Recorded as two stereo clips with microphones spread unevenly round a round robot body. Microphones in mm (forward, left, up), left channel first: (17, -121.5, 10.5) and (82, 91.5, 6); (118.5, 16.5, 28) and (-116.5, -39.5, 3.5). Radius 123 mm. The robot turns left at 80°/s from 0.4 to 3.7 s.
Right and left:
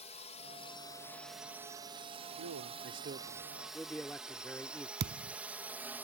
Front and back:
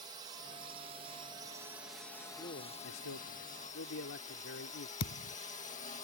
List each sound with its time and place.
0.0 s a drone: 130° right; by 6.0 s 5° left
2.4 s a man speaking: 80° left; by 4.9 s 25° right
5.0 s a thud: 45° left